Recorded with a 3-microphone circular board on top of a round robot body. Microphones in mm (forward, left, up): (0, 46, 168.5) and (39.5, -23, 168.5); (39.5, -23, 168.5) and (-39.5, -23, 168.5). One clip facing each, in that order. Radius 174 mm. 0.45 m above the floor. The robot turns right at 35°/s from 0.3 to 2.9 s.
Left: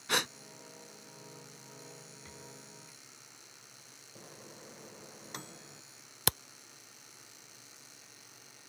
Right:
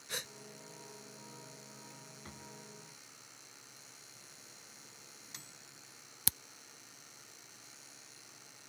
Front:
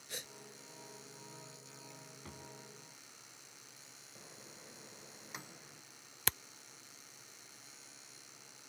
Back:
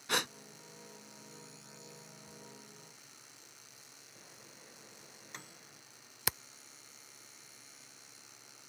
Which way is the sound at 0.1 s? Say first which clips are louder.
Left 12 dB, back 15 dB; 150° left.